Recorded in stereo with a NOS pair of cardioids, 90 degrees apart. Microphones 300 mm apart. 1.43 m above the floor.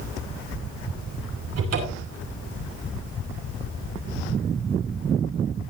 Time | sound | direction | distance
1.6 | a cupboard door | 55° right | 6 m